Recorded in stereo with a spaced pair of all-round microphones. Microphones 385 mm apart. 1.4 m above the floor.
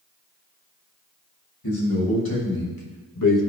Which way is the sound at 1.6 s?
70° left (ahead or behind).